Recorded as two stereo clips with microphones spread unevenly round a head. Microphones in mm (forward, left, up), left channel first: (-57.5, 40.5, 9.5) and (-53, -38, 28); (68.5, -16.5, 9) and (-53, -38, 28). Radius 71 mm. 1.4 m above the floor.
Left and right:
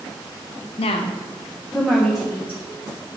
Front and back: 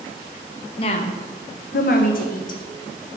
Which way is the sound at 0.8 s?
70° left.